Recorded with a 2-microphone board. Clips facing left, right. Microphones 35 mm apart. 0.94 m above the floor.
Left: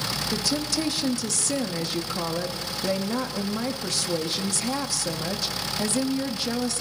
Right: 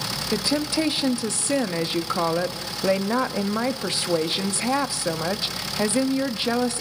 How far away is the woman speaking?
About 1.3 m.